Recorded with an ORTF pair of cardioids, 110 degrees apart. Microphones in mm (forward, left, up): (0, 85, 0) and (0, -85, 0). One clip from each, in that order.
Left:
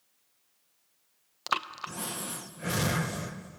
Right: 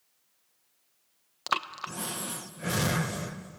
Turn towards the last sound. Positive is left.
turn(degrees=-5)